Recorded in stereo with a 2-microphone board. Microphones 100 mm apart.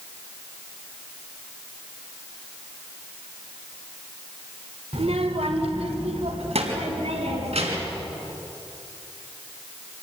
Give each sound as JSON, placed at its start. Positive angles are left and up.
{"t": 4.9, "sound": "a child speaking", "side_deg": -70, "distance_m": 1.4}